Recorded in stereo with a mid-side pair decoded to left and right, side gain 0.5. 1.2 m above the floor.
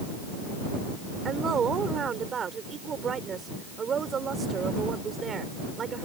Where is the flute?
I don't hear a flute.